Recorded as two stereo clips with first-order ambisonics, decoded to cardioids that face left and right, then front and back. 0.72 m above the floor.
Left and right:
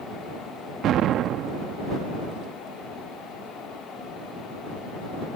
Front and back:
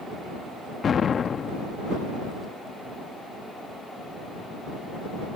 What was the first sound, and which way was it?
An explosion, 55° right.